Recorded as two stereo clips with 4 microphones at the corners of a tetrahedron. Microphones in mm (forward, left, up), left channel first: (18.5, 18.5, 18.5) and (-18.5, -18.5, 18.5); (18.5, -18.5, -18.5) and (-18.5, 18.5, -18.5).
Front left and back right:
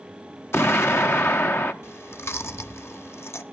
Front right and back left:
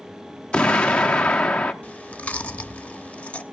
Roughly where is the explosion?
Ahead left.